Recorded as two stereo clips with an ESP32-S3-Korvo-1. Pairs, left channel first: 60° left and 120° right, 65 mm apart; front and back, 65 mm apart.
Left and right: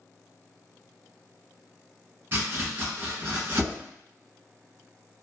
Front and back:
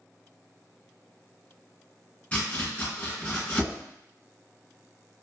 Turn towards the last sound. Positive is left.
turn(degrees=-70)